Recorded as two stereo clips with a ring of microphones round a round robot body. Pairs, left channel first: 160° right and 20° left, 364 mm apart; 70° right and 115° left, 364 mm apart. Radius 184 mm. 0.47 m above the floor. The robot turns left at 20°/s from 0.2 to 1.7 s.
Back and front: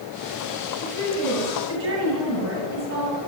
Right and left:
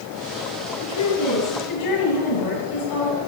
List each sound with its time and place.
0.8 s a woman speaking: 15° right, 8.5 m; by 3.2 s 35° right, 8.5 m